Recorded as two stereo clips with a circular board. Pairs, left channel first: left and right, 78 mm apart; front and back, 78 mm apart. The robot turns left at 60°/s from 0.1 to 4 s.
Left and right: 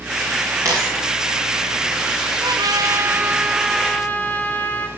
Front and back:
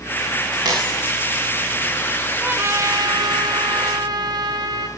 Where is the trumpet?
110° right, 1.1 m; by 4.9 s 155° left, 1.1 m.